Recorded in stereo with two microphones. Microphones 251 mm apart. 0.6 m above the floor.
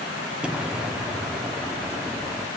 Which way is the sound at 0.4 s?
5° right (ahead or behind).